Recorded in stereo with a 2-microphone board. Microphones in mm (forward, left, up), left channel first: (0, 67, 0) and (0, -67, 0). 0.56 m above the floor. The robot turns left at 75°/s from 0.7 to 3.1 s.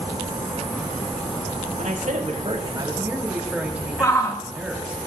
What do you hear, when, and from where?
1.8 s a man speaking: 70° right, 3.5 m; by 5.0 s 170° right, 3.5 m
4.0 s a shout: 25° left (ahead or behind), 1.4 m